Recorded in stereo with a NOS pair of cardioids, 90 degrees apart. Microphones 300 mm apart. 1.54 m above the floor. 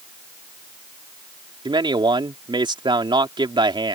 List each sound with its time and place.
1.6 s a man speaking: 15° right